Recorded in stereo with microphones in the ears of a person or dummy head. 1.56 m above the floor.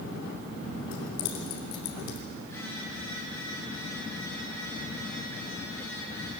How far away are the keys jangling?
About 3.5 m.